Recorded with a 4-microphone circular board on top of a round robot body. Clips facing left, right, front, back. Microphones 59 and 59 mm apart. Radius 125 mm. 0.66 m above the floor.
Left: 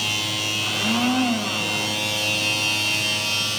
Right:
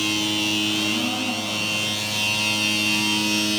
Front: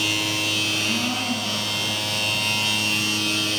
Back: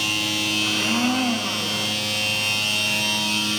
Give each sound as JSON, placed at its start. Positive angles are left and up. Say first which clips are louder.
{"t": 0.6, "sound": "a blender", "louder": "left 1 dB, back 3 dB", "azimuth_deg": 115, "distance_m": 2.0}